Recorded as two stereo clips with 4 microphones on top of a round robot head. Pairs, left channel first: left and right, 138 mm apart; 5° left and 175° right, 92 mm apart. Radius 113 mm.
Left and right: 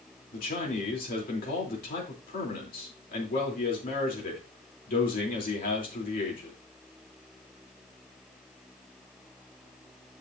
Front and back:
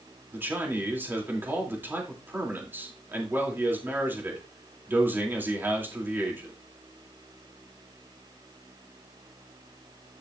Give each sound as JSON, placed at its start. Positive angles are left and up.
{"t": 0.3, "sound": "a man speaking", "azimuth_deg": 115, "distance_m": 3.0}